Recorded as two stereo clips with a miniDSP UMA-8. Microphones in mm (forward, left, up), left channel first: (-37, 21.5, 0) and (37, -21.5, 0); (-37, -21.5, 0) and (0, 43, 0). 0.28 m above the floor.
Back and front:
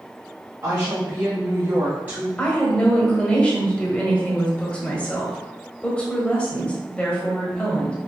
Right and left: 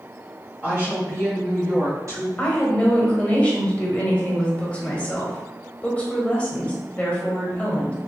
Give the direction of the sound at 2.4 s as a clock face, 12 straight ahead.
5 o'clock.